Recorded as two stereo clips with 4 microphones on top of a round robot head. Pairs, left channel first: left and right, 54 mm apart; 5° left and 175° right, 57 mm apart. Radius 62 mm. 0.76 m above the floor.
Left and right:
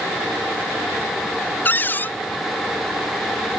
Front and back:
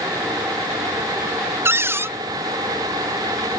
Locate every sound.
1.6 s a cupboard door: 145° left